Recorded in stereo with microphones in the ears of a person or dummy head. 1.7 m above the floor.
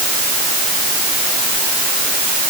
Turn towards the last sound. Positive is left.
No sound to turn to.